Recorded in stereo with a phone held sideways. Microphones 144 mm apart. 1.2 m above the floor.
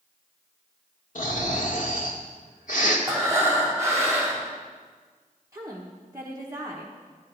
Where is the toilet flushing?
No toilet flushing in this recording.